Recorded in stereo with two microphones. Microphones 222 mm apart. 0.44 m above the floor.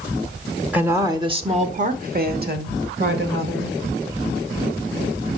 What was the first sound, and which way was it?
A woman speaking, 5° right (ahead or behind).